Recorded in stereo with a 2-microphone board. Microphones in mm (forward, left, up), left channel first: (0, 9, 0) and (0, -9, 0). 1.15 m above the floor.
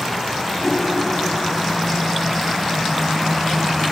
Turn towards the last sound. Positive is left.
turn(degrees=10)  # may be behind; listen again after turning